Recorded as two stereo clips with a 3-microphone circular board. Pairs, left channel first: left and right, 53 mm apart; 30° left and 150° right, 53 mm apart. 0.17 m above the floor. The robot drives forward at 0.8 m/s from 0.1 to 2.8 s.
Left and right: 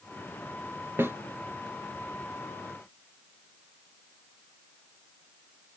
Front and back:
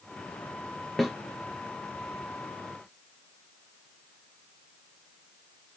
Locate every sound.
1.0 s a snare drum: 50° right, 0.9 m; by 1.2 s 60° right, 0.8 m